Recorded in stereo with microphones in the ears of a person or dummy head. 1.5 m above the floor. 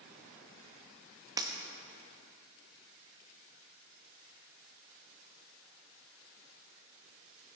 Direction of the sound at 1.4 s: 20° right (ahead or behind).